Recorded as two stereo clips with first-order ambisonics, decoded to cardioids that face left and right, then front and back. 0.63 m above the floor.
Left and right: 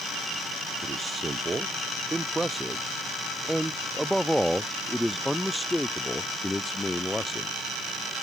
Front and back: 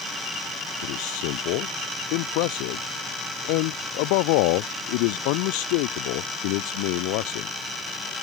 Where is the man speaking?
15° right; by 7.5 s 10° left.